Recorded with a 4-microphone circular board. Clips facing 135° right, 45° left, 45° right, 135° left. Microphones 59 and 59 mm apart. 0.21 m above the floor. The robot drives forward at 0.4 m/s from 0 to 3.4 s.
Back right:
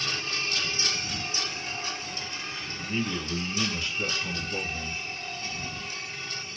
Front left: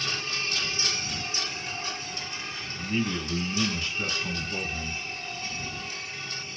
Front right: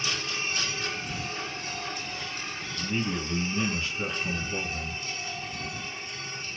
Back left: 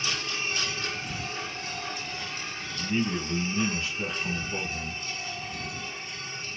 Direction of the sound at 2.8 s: 95° left.